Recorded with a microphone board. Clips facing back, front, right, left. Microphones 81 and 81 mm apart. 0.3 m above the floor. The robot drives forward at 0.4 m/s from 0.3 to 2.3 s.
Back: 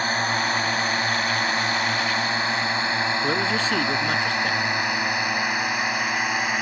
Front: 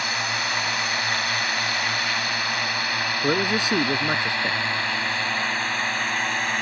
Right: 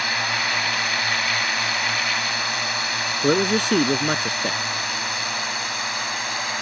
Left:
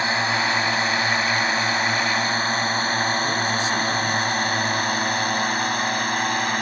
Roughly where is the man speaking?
Right.